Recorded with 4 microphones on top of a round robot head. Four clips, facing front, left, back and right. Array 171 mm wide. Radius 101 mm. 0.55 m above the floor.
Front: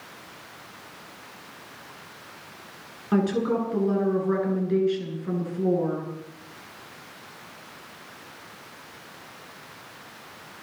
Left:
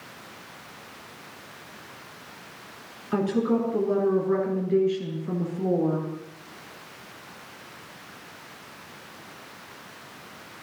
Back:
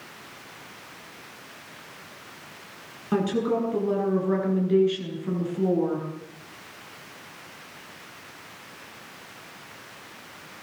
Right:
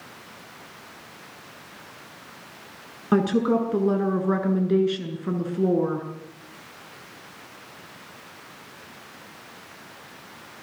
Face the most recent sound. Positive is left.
turn(degrees=-100)